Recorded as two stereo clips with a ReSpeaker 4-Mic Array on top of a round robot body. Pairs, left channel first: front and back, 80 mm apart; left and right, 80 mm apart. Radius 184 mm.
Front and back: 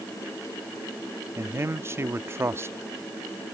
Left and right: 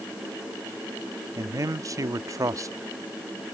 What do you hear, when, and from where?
1.4 s a man speaking: 130° right